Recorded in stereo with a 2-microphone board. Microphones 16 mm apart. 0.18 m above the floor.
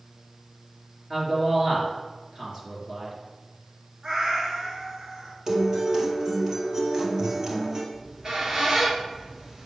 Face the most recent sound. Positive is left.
turn(degrees=-45)  # may be behind; listen again after turning